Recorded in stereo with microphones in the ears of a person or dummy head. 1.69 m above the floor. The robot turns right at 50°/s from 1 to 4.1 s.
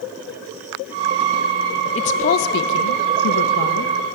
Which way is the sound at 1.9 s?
30° left.